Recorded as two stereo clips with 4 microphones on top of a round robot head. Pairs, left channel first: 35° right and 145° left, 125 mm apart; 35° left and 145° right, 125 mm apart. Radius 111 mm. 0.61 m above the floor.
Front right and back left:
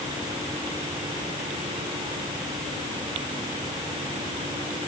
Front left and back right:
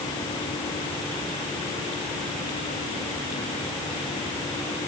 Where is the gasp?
No gasp in this recording.